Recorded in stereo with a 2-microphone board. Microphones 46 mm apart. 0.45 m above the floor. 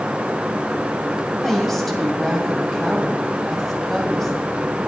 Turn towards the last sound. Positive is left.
turn(degrees=5)  # may be behind; listen again after turning